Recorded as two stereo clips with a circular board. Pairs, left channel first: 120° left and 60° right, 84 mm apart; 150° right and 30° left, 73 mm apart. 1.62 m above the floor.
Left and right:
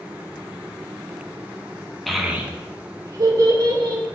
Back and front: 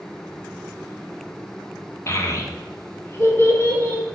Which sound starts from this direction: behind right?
A child speaking, at 2.1 s.